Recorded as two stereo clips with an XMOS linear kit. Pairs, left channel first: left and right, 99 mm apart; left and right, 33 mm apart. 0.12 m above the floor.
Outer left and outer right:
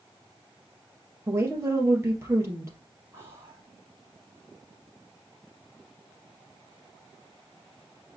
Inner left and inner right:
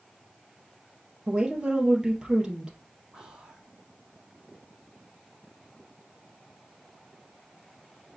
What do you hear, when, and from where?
1.3 s a woman speaking: 25° right (ahead or behind), 3 m
3.1 s whispering: 25° right (ahead or behind), 4.5 m